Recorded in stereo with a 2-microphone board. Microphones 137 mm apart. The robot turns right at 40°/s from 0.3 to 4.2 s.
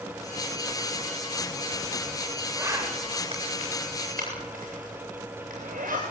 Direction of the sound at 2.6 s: 15° right (ahead or behind).